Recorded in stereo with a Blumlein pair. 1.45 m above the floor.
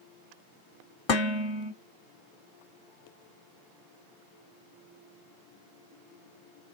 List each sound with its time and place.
1.1 s dishes clattering: 30° left, 1.7 m